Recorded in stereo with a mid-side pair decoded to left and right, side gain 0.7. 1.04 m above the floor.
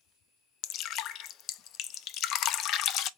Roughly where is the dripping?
Ahead left.